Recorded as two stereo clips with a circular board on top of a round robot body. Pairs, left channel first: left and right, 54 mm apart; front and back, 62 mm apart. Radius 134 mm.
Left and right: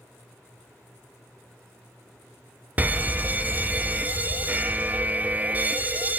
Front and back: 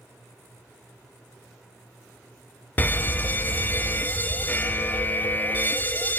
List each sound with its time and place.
2.8 s an alarm: 45° right, 0.6 m